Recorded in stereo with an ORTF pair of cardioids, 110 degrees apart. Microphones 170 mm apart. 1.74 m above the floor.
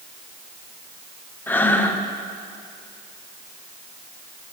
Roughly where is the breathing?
Ahead.